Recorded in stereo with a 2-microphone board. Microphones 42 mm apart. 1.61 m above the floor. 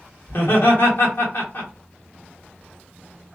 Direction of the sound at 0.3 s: 60° left (ahead or behind).